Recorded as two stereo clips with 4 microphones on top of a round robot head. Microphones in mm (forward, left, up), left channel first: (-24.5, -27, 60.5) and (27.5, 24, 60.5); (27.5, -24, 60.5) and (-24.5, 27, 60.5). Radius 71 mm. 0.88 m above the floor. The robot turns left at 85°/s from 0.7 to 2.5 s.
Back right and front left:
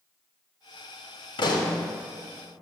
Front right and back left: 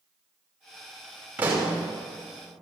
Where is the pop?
150° right, 1.9 m; by 1.8 s 175° left, 1.9 m.